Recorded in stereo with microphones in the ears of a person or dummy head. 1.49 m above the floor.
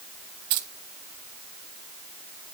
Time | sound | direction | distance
0.5 | keys jangling | 55° right (ahead or behind) | 0.8 m